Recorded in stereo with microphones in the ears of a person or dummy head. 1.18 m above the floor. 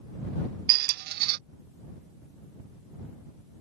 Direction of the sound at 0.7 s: 60° right (ahead or behind).